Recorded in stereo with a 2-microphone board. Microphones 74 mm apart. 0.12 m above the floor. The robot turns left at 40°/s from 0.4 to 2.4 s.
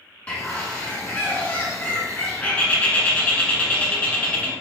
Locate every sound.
0.3 s a bird: 15° left (ahead or behind), 0.6 m; by 4.5 s 20° left (ahead or behind), 0.6 m